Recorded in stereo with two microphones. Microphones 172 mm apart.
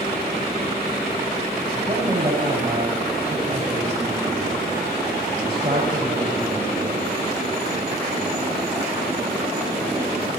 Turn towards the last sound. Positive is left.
turn(degrees=-25)  # may be behind; listen again after turning